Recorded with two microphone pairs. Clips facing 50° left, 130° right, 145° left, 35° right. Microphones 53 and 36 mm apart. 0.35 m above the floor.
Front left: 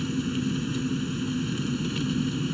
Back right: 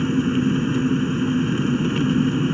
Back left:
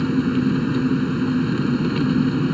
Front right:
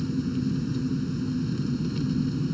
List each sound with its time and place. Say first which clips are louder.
0.0 s an engine running: back right 8 dB, back left 8 dB; straight behind